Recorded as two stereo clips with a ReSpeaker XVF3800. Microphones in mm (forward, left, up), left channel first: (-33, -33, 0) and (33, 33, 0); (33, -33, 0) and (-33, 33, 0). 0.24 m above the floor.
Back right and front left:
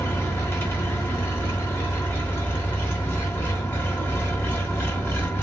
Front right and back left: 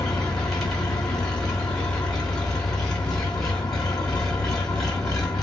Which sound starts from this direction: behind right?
An engine running, at 0.0 s.